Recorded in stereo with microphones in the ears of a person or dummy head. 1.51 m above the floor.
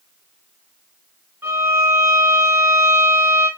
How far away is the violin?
About 0.7 m.